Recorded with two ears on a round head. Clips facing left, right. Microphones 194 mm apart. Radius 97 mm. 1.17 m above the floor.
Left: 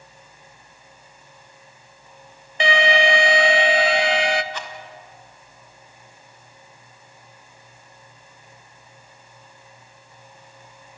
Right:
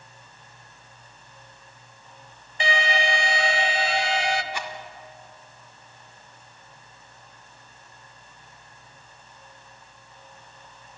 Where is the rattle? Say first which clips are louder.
Right 1 dB; 10° right (ahead or behind), 1.7 m.